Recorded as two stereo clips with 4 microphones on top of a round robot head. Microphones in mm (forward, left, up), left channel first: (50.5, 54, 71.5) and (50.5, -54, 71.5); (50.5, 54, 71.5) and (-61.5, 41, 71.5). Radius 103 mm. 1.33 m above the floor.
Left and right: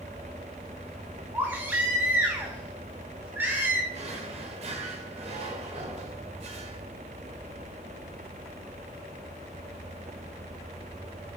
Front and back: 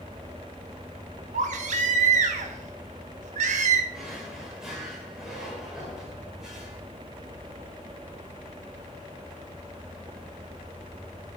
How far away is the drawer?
About 1.7 m.